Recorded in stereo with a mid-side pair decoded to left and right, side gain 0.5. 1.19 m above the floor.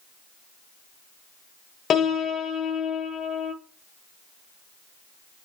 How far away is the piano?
About 0.7 m.